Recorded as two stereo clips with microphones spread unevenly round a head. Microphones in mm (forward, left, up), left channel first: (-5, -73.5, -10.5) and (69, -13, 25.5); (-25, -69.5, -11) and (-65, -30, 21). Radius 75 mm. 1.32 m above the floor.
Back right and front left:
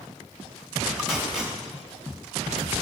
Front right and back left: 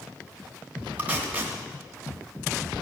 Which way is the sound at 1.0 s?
110° left.